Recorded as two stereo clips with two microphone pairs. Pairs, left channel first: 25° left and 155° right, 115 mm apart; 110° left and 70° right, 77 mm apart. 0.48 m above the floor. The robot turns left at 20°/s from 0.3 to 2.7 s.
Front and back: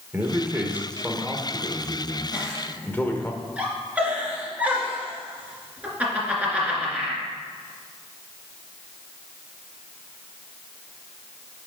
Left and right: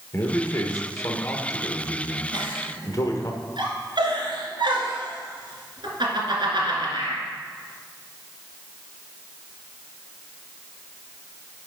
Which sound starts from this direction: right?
A giggle, at 2.3 s.